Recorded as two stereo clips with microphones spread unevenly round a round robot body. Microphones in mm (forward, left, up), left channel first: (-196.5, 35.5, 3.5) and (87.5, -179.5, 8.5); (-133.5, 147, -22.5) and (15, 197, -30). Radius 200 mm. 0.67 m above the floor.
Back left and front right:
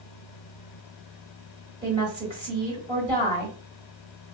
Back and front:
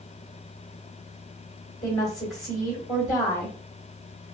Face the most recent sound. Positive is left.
turn(degrees=-115)